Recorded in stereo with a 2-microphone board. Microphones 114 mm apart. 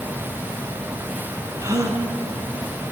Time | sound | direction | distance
1.6 | a gasp | 30° right (ahead or behind) | 3.5 m